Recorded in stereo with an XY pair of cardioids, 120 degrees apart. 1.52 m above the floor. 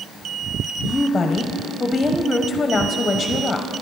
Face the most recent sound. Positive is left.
turn(degrees=25)